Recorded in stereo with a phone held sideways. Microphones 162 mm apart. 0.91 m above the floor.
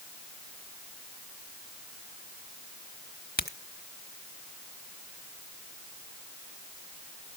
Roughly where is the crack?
Left.